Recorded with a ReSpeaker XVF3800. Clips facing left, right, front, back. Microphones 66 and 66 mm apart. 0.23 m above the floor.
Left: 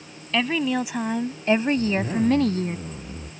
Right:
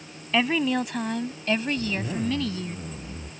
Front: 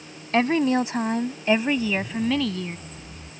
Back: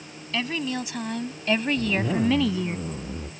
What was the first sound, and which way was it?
A woman speaking, 10° right.